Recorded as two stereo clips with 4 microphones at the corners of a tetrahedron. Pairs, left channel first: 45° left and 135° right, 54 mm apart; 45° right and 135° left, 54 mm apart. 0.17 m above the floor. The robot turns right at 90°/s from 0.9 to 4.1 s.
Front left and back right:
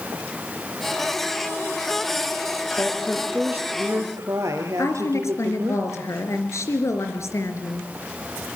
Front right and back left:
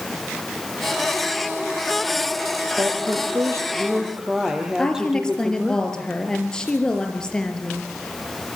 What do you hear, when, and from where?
2.8 s a woman speaking: 95° left, 4 m; by 5.8 s 145° right, 4 m
4.8 s a woman speaking: 30° left, 3.5 m